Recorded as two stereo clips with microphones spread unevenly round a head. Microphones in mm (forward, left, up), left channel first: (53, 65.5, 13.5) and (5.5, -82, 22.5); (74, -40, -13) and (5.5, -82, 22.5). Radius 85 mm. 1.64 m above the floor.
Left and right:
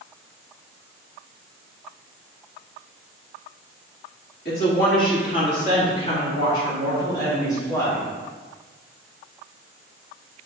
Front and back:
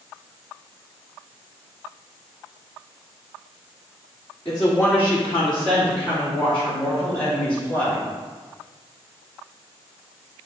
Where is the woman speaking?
110° left, 2.5 m; by 8.1 s 150° left, 3.5 m.